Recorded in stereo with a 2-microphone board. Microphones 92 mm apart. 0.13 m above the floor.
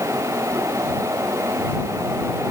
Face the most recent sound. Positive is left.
No sound to turn to.